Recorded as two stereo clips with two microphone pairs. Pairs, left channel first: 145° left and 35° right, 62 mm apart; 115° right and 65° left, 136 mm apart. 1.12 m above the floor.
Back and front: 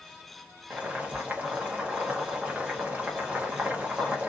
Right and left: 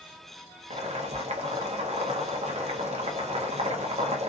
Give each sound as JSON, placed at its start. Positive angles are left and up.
{"t": 0.7, "sound": "boiling", "azimuth_deg": 30, "distance_m": 0.7}